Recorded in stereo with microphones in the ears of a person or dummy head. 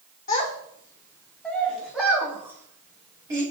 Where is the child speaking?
35° left (ahead or behind), 1.0 m; by 3.4 s 20° right (ahead or behind), 2 m.